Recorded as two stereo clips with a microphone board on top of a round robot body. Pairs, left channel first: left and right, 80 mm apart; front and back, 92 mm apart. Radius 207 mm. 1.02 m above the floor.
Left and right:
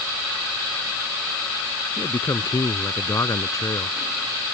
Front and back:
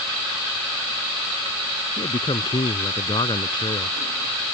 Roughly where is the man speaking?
Ahead left.